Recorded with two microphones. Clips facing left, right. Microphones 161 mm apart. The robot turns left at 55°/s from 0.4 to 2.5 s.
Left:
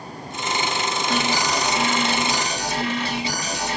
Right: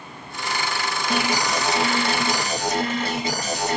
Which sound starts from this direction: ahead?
An alarm, at 1.1 s.